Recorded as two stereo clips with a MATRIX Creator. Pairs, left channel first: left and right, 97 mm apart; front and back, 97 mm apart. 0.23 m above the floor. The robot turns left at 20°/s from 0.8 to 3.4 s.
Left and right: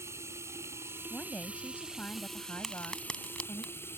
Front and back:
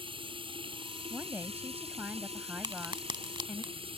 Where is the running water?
155° right; by 4.0 s 155° left.